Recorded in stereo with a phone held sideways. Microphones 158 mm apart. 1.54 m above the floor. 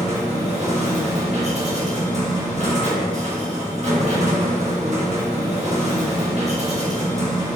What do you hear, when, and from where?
0.0 s a machine running: 45° right (ahead or behind), 1.6 m